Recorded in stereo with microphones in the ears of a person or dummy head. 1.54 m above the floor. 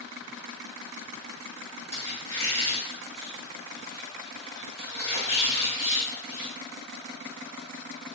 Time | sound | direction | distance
1.9 | a squeak | 15° left (ahead or behind) | 1.8 m